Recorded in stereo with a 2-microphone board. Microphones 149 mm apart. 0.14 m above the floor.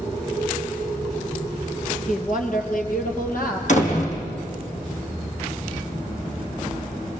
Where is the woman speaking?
60° left (ahead or behind), 2.5 m; by 3.6 s 70° left (ahead or behind), 4 m.